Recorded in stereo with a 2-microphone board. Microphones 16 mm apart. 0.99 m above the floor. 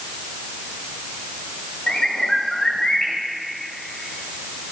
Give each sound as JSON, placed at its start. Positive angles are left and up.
{"t": 1.9, "sound": "a bird", "side_deg": 75, "distance_m": 2.5}